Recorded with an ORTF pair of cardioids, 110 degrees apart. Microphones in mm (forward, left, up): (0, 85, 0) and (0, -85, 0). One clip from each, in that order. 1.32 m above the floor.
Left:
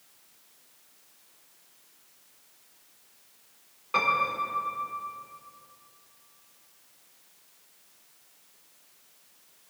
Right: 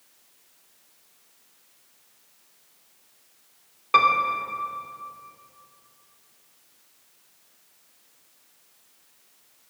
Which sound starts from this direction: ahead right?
A piano, at 3.9 s.